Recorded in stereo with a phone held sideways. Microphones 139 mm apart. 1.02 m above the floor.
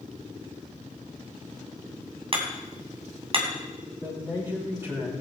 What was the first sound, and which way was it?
Hammering, 40° right (ahead or behind).